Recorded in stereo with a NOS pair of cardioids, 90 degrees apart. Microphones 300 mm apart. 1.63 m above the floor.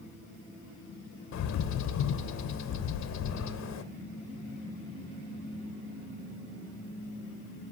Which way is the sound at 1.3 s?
65° left.